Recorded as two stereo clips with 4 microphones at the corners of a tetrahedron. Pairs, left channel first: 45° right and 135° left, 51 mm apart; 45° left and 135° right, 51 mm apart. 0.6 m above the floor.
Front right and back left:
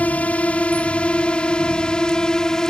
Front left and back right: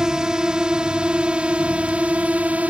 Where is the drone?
70° right; by 2.7 s 110° right.